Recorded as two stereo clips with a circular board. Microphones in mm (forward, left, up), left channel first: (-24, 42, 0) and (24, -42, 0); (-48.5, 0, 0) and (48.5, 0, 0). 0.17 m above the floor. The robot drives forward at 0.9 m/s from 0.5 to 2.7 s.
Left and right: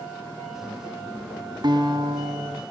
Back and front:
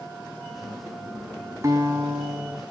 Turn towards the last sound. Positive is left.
turn(degrees=-80)